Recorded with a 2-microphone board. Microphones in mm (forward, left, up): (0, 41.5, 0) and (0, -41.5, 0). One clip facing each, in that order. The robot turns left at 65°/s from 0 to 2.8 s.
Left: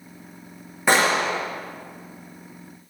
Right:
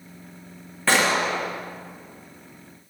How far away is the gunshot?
About 6 m.